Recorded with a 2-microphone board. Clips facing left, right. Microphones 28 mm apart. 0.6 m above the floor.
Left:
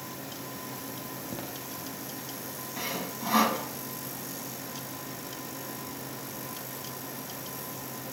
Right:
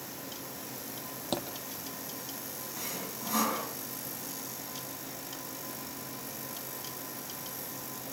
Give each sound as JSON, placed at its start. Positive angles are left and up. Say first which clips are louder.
{"t": 1.3, "sound": "a thud", "louder": "right 6 dB", "side_deg": -80, "distance_m": 6.5}
{"t": 2.8, "sound": "sawing", "louder": "left 6 dB", "side_deg": 30, "distance_m": 4.5}